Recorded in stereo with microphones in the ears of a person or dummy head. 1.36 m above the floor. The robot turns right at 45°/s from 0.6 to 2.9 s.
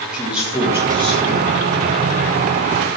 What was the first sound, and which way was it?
A man speaking, 175° right.